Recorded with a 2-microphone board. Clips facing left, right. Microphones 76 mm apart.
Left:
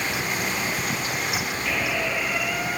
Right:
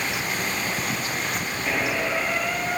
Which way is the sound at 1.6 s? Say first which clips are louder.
Right 2 dB; 25° right (ahead or behind).